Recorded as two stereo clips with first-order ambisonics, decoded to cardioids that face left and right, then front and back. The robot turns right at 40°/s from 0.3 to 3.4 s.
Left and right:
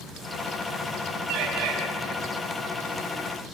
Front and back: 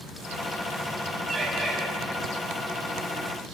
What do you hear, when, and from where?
1.3 s a bird: 100° right, 5.5 m; by 1.8 s 80° right, 5.5 m